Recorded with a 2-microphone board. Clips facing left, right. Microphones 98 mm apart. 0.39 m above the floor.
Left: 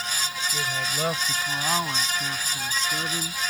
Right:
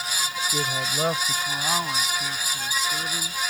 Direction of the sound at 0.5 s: 30° right (ahead or behind).